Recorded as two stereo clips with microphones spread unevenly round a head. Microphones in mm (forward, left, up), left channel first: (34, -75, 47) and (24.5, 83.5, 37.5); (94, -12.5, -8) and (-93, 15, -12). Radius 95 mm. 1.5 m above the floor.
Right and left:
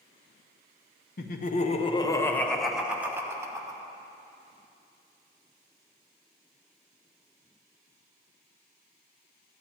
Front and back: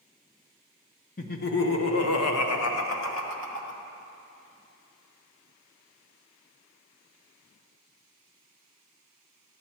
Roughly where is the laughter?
Ahead right.